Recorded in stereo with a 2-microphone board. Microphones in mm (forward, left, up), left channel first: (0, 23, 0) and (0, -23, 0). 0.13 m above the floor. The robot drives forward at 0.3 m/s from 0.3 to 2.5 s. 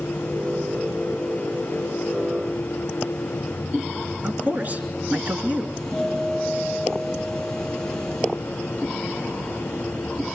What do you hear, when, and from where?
4.2 s a man speaking: 40° right (ahead or behind), 2.0 m
5.7 s a doorbell: 10° left (ahead or behind), 5 m